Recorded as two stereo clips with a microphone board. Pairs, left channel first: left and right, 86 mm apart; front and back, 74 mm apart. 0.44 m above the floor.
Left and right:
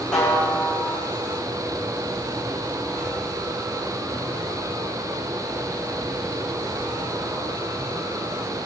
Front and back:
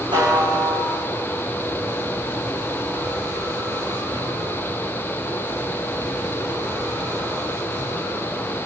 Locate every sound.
0.1 s a snare drum: 170° left, 7.5 m